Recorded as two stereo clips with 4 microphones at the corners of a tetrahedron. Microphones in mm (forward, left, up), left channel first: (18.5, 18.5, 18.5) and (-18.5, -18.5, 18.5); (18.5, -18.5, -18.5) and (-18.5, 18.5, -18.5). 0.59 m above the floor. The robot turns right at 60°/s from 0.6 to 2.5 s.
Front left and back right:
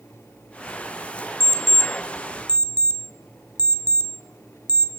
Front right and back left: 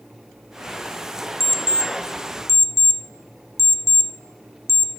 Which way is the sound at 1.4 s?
45° left.